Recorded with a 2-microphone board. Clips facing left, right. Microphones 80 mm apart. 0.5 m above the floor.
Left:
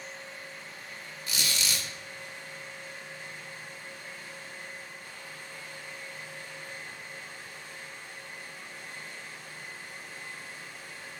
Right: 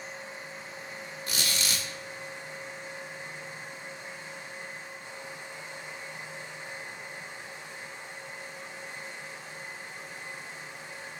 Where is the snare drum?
No snare drum in this recording.